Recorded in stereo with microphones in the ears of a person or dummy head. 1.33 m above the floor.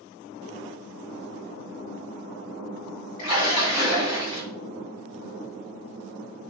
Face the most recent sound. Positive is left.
turn(degrees=75)  # may be behind; listen again after turning